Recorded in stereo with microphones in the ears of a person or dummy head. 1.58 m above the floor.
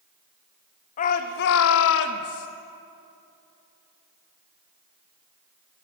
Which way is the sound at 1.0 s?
45° left (ahead or behind).